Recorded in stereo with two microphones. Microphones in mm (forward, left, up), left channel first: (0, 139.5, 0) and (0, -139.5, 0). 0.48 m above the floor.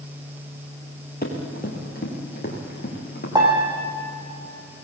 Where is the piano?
15° right (ahead or behind), 6.5 m.